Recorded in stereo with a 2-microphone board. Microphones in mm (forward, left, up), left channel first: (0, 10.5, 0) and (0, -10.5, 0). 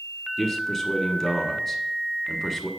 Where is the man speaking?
Centre (ahead or behind), 1.4 m.